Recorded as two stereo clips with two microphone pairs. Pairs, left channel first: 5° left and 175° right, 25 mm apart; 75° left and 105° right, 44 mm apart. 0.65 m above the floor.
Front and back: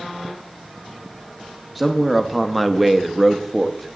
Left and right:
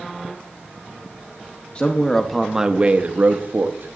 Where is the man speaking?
105° left, 0.8 m; by 4.0 s 80° right, 1.2 m.